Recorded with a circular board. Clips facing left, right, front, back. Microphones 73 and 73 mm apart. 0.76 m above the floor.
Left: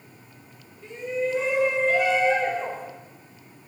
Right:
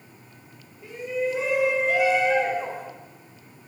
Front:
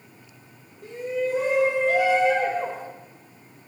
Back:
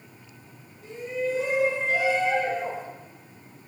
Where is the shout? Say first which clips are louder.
Even, front 3 dB; 10° right, 4 m.